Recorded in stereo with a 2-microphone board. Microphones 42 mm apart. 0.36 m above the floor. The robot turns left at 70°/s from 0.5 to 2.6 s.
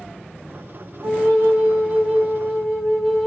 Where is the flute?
85° right, 2 m; by 3.3 s 165° left, 2 m.